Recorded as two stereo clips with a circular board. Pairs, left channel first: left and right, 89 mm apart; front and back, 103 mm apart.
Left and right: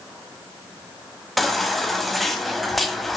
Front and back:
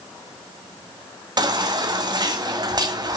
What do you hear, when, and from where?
1.4 s a baby crying: straight behind, 1.2 m